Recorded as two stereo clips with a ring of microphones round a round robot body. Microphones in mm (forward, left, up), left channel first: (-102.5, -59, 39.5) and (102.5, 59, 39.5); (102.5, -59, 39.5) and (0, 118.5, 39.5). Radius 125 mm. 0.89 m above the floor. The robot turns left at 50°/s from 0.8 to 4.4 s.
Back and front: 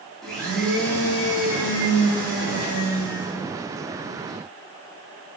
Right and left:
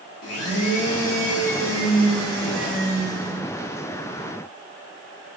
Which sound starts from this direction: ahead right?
A blender, at 0.2 s.